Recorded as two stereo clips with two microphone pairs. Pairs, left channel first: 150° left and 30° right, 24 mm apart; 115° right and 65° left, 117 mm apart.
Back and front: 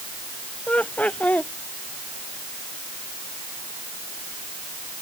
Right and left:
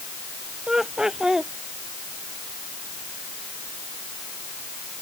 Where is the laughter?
150° left.